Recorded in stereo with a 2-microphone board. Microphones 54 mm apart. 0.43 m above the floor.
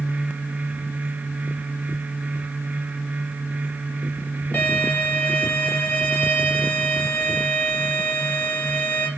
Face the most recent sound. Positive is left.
turn(degrees=35)  # may be behind; listen again after turning